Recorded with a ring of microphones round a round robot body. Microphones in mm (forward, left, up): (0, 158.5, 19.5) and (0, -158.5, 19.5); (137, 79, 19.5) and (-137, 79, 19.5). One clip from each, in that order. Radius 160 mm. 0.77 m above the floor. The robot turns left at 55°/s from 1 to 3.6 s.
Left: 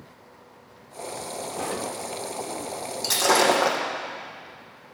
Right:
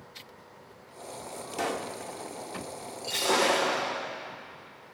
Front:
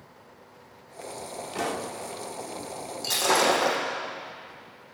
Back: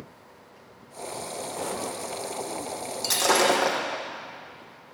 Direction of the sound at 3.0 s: 125° left.